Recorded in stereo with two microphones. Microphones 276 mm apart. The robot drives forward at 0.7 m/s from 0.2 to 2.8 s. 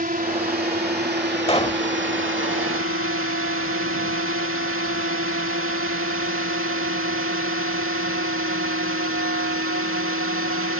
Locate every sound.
0.0 s a drone: 35° right (ahead or behind); by 10.8 s 50° right (ahead or behind)
1.5 s a pop: 20° left (ahead or behind); by 1.8 s 25° left (ahead or behind)